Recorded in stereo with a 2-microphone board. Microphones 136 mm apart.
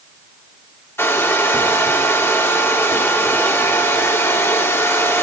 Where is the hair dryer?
15° left (ahead or behind), 0.7 m.